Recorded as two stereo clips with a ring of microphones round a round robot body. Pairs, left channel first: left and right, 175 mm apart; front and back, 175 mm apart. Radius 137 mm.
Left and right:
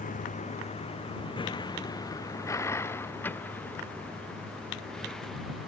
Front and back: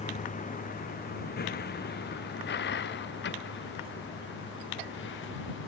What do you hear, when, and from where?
0.0 s a vehicle: 50° left; by 5.7 s straight ahead